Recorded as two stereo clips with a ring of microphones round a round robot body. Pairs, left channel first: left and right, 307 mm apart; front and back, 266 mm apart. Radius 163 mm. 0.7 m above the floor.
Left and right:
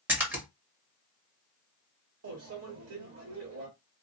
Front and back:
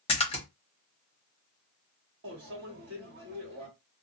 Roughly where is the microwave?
Behind right.